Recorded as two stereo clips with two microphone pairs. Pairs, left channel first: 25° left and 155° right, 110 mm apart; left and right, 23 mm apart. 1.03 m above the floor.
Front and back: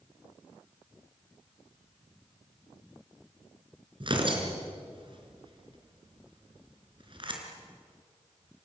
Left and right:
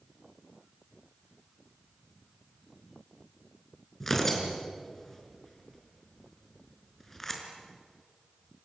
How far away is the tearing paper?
About 4 m.